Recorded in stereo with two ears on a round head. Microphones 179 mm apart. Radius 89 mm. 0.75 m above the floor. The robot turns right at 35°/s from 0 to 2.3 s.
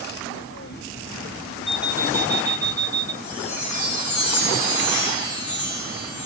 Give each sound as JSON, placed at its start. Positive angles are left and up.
{"t": 1.7, "sound": "an alarm clock", "side_deg": 0, "distance_m": 0.6}
{"t": 3.2, "sound": "a chime", "side_deg": 85, "distance_m": 6.5}